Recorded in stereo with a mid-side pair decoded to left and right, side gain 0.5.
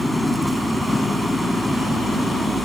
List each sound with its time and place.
0.0 s an engine running: 5° left